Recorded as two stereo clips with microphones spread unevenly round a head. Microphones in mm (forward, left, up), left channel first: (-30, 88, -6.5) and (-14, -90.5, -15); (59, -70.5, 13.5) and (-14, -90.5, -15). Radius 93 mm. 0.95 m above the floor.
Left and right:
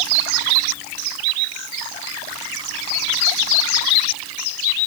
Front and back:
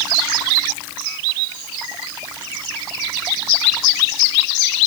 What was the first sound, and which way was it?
Only background noise.